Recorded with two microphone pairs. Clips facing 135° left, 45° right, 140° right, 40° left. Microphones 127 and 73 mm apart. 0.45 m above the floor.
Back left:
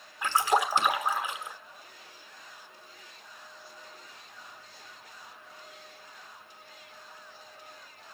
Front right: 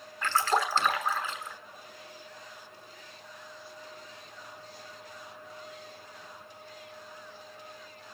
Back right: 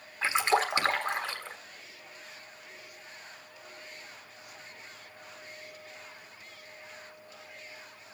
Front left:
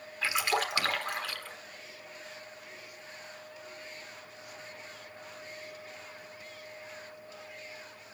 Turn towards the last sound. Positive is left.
turn(degrees=-160)